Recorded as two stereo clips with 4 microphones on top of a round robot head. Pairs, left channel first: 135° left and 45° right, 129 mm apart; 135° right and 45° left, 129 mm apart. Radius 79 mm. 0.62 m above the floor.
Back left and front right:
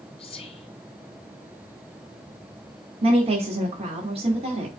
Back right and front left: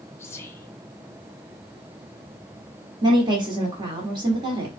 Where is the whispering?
160° left, 1.2 m.